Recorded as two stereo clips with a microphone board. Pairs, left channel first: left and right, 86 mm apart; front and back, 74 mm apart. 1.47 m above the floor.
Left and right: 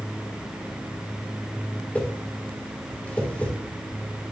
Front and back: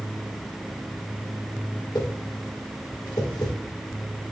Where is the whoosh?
20° left, 1.6 m.